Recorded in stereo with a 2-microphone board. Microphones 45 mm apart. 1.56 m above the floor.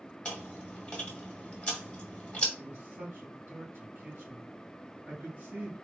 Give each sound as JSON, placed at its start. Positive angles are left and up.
{"t": 0.2, "sound": "chewing", "side_deg": 20, "distance_m": 1.5}
{"t": 2.6, "sound": "a man speaking", "side_deg": -70, "distance_m": 2.0}